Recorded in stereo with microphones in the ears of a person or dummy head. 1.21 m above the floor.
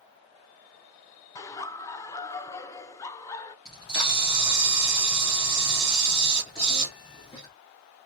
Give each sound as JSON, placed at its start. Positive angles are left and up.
{"t": 1.4, "sound": "laughter", "side_deg": 20, "distance_m": 0.5}
{"t": 3.6, "sound": "a camera shutter", "side_deg": 30, "distance_m": 1.4}